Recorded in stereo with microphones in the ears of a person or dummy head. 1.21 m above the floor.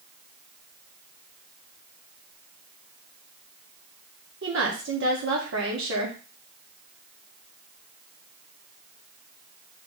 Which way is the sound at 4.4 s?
60° right (ahead or behind).